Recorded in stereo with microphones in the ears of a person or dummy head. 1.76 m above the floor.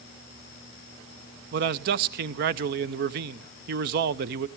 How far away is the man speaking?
About 0.8 m.